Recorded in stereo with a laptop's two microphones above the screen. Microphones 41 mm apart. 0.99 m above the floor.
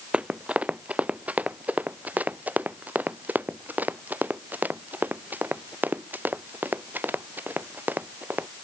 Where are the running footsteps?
30° right (ahead or behind); by 8.5 s 45° right (ahead or behind).